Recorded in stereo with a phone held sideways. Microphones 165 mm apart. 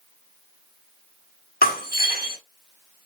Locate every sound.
1.6 s breaking glass: 65° left (ahead or behind), 1.1 m